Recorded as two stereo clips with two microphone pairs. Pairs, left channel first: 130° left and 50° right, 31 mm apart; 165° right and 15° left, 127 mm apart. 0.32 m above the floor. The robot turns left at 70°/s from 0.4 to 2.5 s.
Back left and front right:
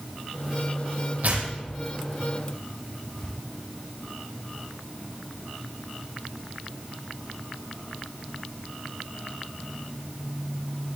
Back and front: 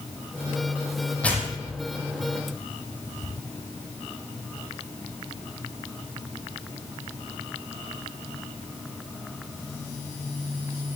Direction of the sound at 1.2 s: 80° right.